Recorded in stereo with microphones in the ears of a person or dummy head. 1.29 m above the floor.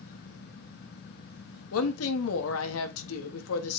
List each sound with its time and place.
1.7 s a woman speaking: 85° left, 1.7 m